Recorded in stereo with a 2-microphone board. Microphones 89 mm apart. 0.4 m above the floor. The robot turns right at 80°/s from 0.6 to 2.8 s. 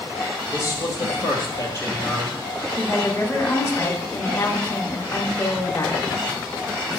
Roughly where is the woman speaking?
Left.